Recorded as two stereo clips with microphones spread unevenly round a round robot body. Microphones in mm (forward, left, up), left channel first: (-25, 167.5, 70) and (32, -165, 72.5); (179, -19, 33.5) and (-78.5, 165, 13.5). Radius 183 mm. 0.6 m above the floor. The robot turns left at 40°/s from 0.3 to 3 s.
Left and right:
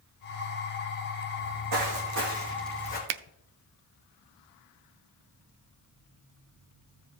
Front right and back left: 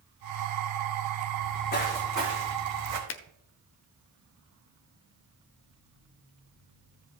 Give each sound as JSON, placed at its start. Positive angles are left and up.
{"t": 1.4, "sound": "footsteps", "azimuth_deg": -80, "distance_m": 3.0}
{"t": 3.1, "sound": "a finger snap", "azimuth_deg": -85, "distance_m": 0.6}